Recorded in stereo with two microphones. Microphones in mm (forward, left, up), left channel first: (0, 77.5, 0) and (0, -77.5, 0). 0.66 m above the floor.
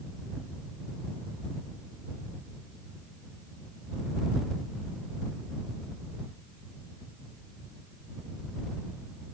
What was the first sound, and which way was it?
Only background noise.